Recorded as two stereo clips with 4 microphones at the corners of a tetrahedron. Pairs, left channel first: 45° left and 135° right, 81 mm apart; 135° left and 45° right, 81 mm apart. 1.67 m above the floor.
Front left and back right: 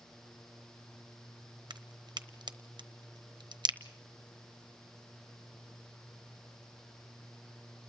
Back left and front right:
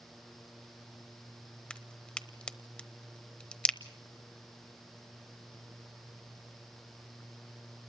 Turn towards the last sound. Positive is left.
turn(degrees=-145)